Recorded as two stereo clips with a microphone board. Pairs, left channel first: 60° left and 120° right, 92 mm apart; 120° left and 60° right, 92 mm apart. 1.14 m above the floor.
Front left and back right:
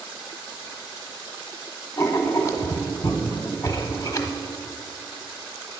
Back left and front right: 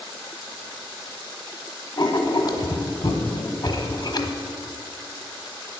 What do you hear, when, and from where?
2.0 s writing: 105° left, 1.1 m